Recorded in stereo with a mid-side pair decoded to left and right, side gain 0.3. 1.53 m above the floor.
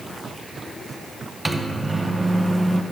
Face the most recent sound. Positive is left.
turn(degrees=-25)